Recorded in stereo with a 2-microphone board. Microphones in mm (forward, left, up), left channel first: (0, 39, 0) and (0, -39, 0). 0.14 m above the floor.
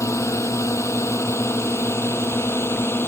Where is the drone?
40° left (ahead or behind); by 3.1 s 30° left (ahead or behind).